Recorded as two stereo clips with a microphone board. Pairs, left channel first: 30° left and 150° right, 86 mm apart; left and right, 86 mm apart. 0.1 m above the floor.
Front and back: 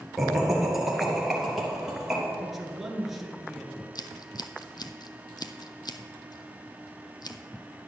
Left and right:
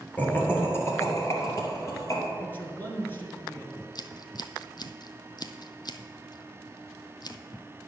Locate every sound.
0.2 s laughter: 125° left, 1.5 m
2.4 s a man speaking: 125° left, 1.6 m
4.0 s scissors: 60° left, 0.6 m